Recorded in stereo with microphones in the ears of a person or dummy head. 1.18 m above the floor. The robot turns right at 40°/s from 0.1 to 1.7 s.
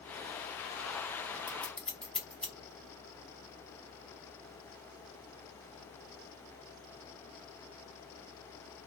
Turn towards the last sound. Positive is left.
turn(degrees=0)  # may be behind; listen again after turning